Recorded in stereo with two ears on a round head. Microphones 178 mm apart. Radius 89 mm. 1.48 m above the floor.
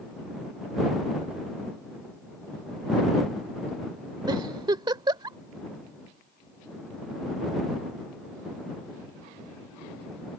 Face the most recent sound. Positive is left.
turn(degrees=-20)  # may be behind; listen again after turning